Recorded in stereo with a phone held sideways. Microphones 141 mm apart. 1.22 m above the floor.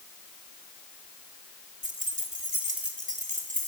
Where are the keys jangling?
65° right (ahead or behind), 1.9 m; by 3.7 s 70° right (ahead or behind), 4 m.